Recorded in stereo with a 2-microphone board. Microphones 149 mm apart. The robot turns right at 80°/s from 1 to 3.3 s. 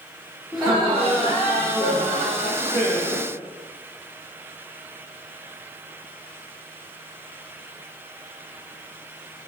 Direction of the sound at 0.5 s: 5° right (ahead or behind).